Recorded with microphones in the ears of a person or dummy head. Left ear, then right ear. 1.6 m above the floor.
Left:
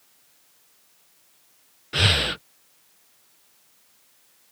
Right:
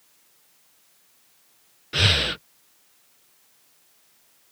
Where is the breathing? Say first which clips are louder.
Even; centre (ahead or behind).